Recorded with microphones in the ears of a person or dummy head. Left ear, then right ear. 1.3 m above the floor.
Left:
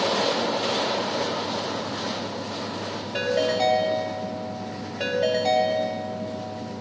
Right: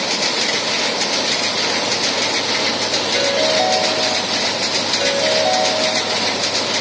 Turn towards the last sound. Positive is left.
turn(degrees=-75)  # may be behind; listen again after turning